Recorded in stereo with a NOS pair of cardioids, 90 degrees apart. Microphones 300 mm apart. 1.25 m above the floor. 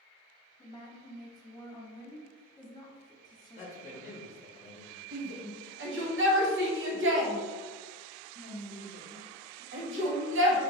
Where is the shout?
40° right, 1.1 m.